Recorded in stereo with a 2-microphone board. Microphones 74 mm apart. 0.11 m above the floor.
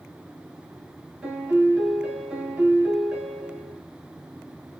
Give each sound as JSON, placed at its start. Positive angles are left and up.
{"t": 1.2, "sound": "a piano", "side_deg": -10, "distance_m": 1.0}